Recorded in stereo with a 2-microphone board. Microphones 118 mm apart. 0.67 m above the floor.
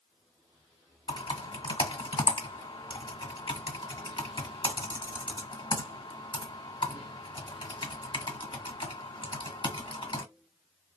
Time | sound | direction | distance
1.1 | typing on a keyboard | 45° left (ahead or behind) | 1.4 m